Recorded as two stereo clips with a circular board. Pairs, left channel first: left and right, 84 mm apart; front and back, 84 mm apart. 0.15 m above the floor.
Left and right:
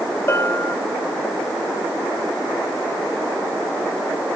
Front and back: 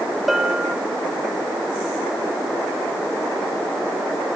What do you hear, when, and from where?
0.3 s a bell: 95° left, 0.8 m